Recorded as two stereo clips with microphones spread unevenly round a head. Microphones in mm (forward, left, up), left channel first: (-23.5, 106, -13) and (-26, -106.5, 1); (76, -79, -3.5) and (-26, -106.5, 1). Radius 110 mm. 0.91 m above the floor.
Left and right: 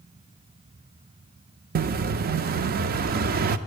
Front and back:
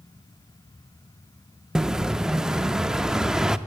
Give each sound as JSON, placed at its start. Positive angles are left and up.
{"t": 1.8, "sound": "an explosion", "azimuth_deg": -85, "distance_m": 0.5}